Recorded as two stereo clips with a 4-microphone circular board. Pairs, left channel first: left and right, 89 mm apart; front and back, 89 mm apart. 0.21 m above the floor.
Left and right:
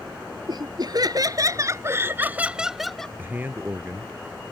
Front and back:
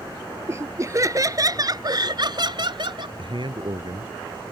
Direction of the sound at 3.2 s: 155° right.